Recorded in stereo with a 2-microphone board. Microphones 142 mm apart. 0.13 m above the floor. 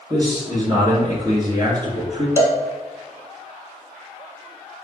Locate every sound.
0.1 s a man speaking: 30° right (ahead or behind), 2 m
2.4 s a cowbell: 20° left (ahead or behind), 0.8 m